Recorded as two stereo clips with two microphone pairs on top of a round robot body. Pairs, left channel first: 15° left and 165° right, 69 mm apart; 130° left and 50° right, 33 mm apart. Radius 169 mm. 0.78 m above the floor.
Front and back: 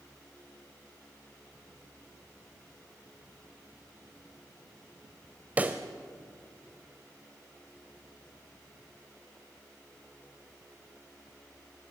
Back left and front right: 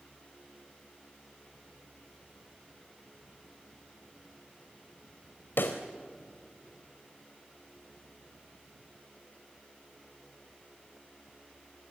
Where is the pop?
120° left, 0.8 m.